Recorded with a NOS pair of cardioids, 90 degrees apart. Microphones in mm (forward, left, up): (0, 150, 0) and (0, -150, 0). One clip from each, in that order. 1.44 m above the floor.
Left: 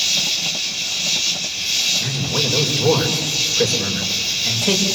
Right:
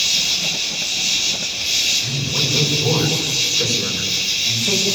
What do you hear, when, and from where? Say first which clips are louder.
0.0 s an insect: right 1 dB; straight ahead, 4.5 m
2.0 s a man speaking: even; 55° left, 7 m